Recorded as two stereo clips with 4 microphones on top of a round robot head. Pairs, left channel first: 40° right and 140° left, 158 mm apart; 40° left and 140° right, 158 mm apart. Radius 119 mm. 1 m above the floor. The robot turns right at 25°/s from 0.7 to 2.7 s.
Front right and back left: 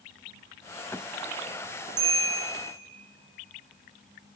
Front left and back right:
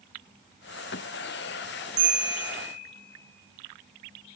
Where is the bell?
155° right, 3 m; by 2.7 s 135° right, 3 m.